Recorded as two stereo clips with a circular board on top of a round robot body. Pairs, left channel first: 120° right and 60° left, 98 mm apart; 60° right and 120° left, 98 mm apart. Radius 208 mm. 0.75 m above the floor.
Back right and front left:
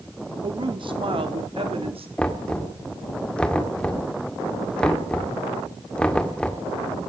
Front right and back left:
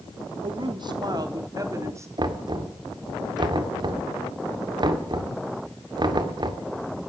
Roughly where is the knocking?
Behind.